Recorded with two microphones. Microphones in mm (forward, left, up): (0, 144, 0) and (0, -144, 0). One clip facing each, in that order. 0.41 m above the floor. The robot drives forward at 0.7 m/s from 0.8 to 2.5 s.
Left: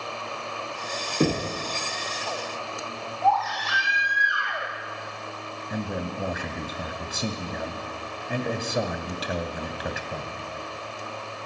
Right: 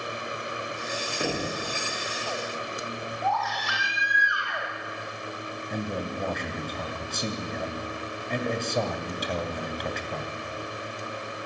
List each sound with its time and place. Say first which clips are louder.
1.2 s knocking: left 7 dB; 40° left (ahead or behind), 4 m; by 1.6 s 45° left (ahead or behind), 4 m
3.2 s a baby crying: left 7 dB; 15° right (ahead or behind), 8 m
5.7 s a man speaking: left 1 dB; 5° left (ahead or behind), 2.5 m